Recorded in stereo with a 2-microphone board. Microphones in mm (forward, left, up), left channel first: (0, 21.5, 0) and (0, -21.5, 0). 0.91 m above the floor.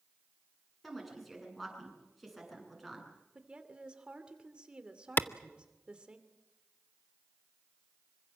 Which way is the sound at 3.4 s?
20° right (ahead or behind).